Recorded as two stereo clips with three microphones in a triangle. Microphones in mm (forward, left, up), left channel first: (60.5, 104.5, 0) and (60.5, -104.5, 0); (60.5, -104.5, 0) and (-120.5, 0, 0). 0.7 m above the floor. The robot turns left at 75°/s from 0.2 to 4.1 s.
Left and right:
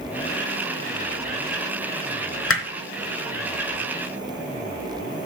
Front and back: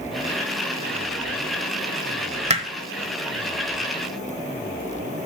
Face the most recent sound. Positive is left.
turn(degrees=-30)